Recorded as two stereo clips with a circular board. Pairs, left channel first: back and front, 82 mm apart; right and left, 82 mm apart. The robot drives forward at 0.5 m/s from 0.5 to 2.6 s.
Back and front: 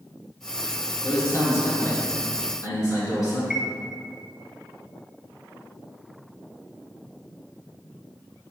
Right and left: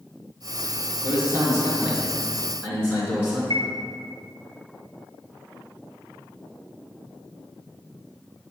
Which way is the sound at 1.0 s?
135° left.